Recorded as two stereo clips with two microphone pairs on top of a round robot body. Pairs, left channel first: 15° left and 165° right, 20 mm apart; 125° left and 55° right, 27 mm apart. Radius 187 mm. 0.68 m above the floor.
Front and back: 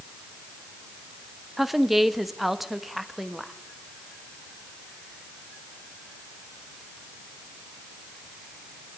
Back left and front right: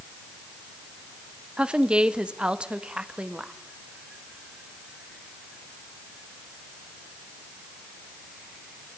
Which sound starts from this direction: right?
A woman speaking, at 1.6 s.